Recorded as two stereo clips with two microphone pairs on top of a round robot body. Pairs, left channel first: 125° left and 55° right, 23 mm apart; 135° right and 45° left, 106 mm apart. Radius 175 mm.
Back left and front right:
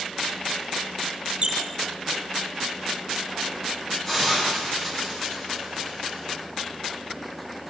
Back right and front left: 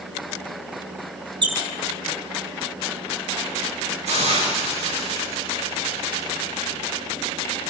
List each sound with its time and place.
1.4 s a squeak: straight ahead, 2.5 m
4.0 s a hiss: 60° left, 8.5 m